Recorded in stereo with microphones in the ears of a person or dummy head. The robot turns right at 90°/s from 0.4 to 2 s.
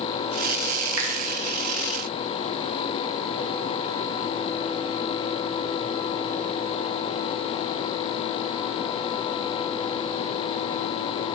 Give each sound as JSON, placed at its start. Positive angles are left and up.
{"t": 1.0, "sound": "a finger snap", "side_deg": -85, "distance_m": 0.5}